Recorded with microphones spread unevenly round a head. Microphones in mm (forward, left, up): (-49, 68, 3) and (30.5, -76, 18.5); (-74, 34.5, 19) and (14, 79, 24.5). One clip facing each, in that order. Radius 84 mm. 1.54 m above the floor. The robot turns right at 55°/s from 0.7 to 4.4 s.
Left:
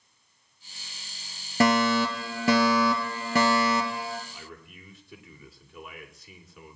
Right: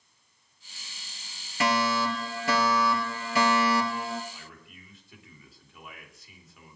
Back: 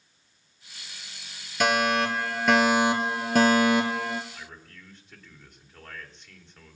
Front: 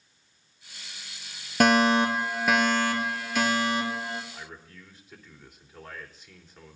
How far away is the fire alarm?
About 2.5 m.